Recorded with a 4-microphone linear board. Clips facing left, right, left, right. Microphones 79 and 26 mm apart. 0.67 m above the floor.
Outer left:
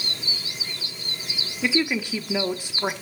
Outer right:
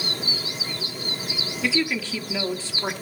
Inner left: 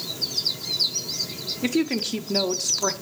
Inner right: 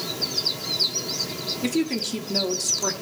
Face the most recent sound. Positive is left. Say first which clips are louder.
# outer left 2 dB, inner left 2 dB
turn(degrees=15)  # may be behind; listen again after turning